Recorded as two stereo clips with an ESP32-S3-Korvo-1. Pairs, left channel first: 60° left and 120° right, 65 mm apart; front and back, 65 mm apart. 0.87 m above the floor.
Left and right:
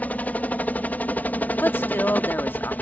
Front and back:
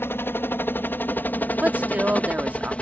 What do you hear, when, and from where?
0.0 s a helicopter: 15° left; by 2.8 s 45° left
1.6 s a woman speaking: 115° left